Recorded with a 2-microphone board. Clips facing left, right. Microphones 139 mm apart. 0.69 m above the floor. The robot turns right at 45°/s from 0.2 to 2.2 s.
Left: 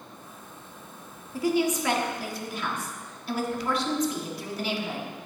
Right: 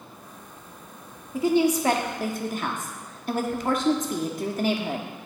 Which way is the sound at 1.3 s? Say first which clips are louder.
Right 4 dB; 155° right.